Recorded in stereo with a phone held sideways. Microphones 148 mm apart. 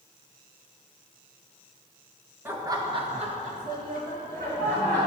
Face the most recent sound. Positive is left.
turn(degrees=-85)